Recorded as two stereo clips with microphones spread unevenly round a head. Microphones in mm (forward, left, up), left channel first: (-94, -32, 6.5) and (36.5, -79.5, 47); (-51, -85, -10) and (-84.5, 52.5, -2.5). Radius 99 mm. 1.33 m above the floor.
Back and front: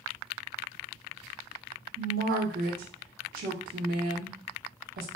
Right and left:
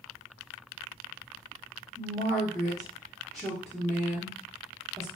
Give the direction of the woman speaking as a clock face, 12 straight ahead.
12 o'clock.